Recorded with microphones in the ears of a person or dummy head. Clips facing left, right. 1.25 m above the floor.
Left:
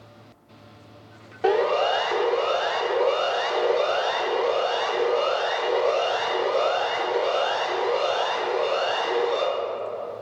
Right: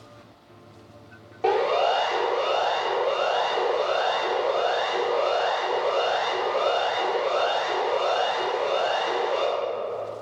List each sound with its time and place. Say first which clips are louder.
1.4 s a siren: left 1 dB; 10° left (ahead or behind), 3 m; by 9.4 s 50° left (ahead or behind), 8.5 m